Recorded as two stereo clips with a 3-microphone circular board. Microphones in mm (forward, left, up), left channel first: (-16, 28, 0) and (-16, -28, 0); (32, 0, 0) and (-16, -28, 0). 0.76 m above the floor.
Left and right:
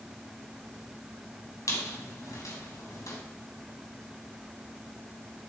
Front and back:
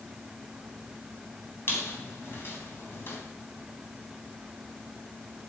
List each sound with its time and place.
1.7 s a squeak: 75° left, 3 m